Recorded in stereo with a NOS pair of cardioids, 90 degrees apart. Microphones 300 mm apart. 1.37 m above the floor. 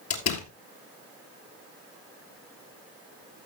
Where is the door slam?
60° left, 3 m.